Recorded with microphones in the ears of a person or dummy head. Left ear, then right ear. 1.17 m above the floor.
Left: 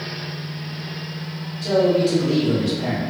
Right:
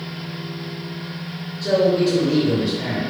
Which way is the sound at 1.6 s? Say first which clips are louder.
Even; 10° right (ahead or behind).